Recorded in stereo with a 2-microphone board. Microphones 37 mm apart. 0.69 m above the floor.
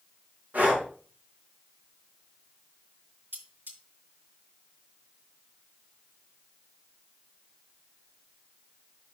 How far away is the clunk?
I don't hear a clunk.